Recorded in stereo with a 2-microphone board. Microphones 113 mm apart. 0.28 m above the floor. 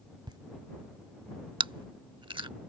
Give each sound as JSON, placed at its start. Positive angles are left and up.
{"t": 0.3, "sound": "laughter", "side_deg": -40}
{"t": 1.6, "sound": "chewing", "side_deg": -45}